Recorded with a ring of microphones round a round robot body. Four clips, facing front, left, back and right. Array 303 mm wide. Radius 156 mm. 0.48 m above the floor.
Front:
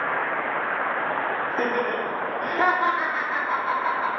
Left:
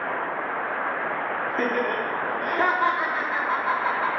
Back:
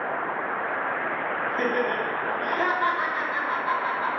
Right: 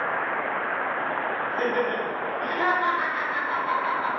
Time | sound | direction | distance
1.5 | laughter | 35° left | 0.9 m